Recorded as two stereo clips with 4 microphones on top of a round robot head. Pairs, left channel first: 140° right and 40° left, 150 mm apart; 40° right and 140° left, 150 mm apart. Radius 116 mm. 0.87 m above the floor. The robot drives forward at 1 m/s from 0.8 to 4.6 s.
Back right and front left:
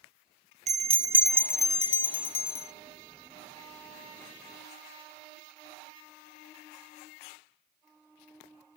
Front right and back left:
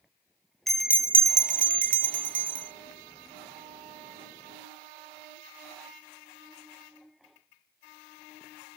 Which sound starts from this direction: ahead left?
A bell, at 0.7 s.